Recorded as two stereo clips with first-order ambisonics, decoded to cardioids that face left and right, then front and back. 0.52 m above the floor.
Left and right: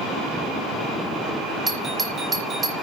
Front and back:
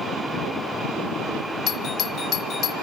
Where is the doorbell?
25° right, 1.3 m.